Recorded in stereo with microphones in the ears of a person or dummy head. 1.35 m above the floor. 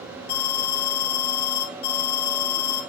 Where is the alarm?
60° left (ahead or behind), 3 m.